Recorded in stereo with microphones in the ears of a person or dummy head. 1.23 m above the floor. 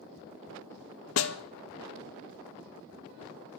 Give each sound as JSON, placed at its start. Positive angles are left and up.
{"t": 1.2, "sound": "a snare drum", "side_deg": 75, "distance_m": 1.0}